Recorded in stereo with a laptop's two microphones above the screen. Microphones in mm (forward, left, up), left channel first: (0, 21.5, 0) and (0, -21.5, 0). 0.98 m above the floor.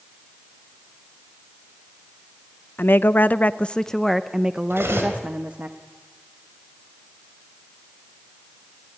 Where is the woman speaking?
60° left (ahead or behind), 0.7 m; by 5.7 s 40° right (ahead or behind), 1.1 m.